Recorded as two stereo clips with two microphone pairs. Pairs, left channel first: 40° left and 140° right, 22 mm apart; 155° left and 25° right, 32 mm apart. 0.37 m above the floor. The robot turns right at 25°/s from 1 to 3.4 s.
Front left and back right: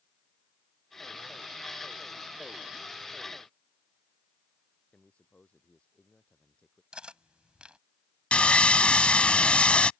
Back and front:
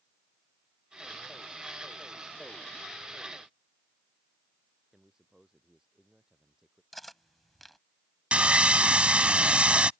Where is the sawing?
25° left.